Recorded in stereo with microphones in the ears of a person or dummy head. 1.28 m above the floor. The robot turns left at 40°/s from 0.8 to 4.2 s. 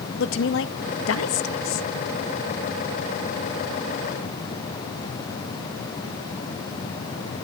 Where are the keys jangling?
No keys jangling in this recording.